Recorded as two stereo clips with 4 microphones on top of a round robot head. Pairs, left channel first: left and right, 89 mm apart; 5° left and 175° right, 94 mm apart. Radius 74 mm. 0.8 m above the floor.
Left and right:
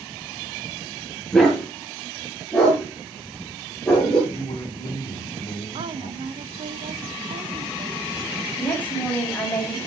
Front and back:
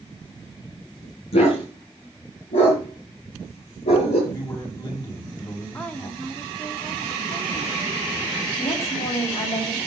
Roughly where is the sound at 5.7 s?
Right.